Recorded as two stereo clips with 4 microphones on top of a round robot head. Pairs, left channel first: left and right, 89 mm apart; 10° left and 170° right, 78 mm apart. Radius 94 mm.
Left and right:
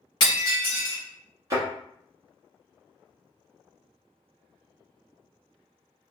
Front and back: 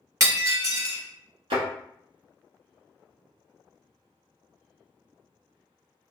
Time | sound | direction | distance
0.2 | breaking glass | 140° left | 1.5 m
1.5 | a thud | 155° right | 1.2 m